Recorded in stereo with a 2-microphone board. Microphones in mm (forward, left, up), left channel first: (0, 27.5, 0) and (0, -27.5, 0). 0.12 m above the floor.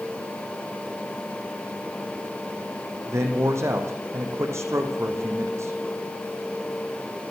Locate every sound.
3.1 s a man speaking: 65° right (ahead or behind), 5 m